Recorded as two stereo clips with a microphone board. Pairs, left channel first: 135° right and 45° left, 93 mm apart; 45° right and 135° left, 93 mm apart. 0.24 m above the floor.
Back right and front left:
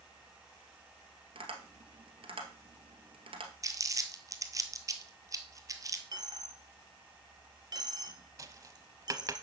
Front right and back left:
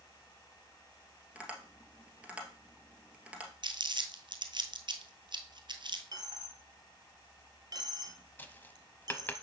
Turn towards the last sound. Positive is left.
turn(degrees=15)